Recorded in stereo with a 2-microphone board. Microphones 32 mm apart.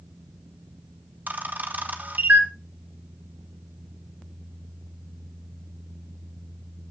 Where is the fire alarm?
No fire alarm in this recording.